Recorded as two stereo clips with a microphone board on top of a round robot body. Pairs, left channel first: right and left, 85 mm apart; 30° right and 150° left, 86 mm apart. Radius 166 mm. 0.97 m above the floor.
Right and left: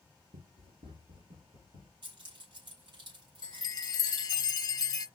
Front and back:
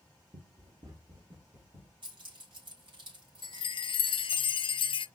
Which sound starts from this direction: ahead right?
A chime, at 3.4 s.